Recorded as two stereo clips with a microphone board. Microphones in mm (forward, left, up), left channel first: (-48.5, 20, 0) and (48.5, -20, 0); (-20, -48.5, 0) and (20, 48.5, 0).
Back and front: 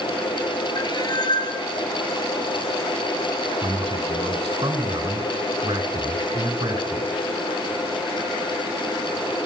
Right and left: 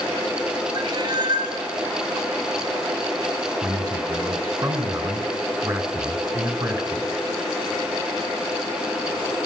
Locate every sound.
0.8 s a cat meowing: 115° left, 2 m
3.6 s a man speaking: 25° left, 3 m